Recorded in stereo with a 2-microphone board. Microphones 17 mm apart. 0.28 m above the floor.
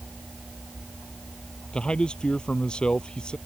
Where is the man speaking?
65° left (ahead or behind).